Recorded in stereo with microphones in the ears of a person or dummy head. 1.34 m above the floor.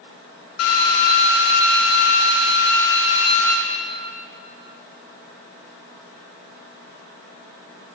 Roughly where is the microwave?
I don't hear a microwave.